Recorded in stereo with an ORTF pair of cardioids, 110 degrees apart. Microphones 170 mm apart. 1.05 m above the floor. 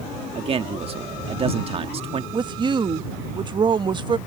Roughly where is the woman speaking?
Ahead right.